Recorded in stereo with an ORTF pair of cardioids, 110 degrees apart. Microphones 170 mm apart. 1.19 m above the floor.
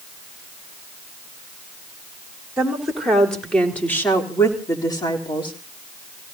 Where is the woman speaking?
5° right, 3.5 m; by 5.5 s 30° left, 3 m.